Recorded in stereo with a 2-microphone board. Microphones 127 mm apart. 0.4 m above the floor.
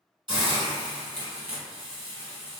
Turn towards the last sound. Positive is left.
turn(degrees=-35)  # may be behind; listen again after turning